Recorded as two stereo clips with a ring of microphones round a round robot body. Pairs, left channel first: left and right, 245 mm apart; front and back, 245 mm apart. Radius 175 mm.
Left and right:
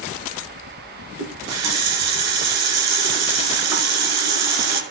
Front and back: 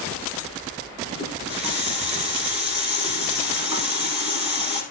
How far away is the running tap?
About 1.6 m.